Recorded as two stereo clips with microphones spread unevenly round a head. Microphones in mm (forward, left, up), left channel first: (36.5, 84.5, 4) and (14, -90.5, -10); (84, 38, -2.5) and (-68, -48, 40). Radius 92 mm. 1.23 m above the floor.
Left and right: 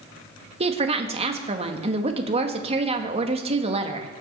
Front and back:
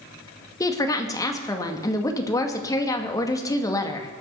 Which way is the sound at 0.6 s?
40° right.